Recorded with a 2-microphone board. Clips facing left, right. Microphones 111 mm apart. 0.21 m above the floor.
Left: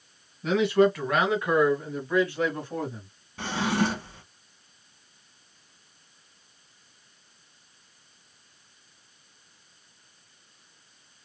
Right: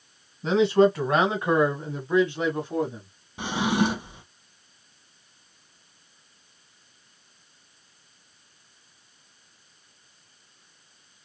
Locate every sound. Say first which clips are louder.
0.4 s a man speaking: right 2 dB; 30° right (ahead or behind), 1.5 m; by 3.1 s 15° right (ahead or behind), 1.3 m
3.4 s a drawer: right 2 dB; 15° right (ahead or behind), 0.7 m